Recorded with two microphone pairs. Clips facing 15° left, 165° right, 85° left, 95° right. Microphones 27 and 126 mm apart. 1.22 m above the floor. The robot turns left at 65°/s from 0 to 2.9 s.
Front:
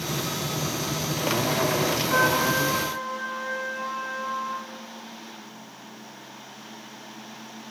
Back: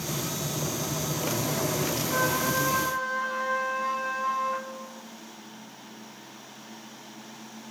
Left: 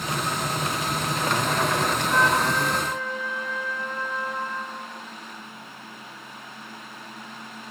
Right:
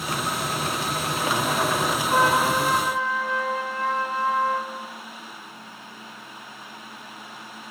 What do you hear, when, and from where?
2.1 s a trumpet: 45° right, 3.5 m; by 4.7 s 95° right, 3.5 m